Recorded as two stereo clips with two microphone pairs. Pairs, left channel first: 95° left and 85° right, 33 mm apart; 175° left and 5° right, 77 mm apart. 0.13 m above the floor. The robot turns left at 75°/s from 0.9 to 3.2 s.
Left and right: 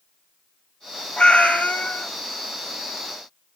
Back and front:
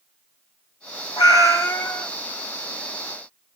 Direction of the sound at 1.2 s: 150° left.